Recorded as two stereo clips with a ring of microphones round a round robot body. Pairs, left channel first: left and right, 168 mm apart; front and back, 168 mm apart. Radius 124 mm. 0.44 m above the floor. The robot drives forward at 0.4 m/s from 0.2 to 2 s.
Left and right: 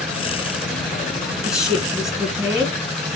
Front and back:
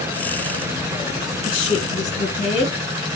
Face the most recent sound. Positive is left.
turn(degrees=-10)